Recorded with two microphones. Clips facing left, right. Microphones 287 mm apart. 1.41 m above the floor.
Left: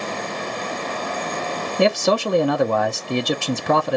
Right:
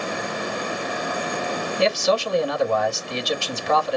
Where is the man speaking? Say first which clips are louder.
Left 3 dB; 60° left (ahead or behind), 0.5 m.